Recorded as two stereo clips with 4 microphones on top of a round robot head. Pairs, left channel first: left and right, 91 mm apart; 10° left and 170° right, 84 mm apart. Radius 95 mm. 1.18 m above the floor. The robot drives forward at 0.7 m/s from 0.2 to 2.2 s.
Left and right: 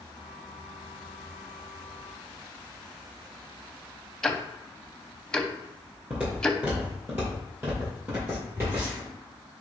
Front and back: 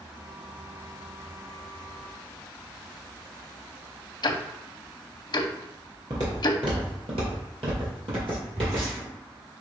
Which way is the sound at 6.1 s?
170° right.